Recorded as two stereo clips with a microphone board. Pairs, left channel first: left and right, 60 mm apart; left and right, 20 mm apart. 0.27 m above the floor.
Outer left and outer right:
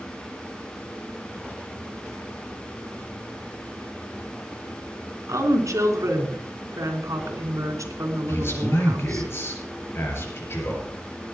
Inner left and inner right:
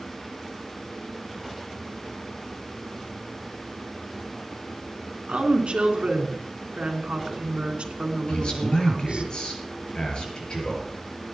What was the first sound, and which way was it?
A woman speaking, 65° right (ahead or behind).